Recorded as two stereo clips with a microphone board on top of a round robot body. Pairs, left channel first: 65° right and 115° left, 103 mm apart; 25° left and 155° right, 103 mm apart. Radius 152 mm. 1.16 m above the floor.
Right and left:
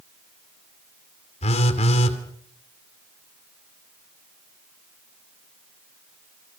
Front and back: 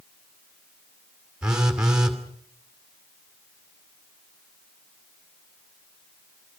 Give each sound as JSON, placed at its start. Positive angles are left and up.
{"t": 1.4, "sound": "a phone buzzing", "azimuth_deg": -75, "distance_m": 2.5}